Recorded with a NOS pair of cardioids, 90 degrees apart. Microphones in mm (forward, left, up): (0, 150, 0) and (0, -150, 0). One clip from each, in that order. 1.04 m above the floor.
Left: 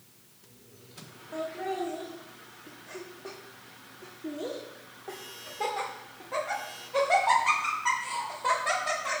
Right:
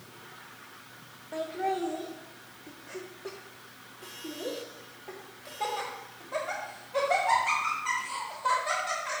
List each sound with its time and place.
1.3 s laughter: 25° right, 1.8 m; by 9.2 s 55° left, 5 m